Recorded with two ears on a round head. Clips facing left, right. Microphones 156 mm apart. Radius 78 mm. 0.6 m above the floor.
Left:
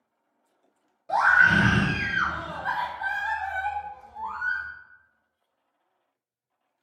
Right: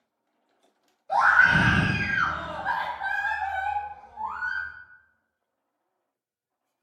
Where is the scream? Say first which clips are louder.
Even; 65° left (ahead or behind), 1.2 m.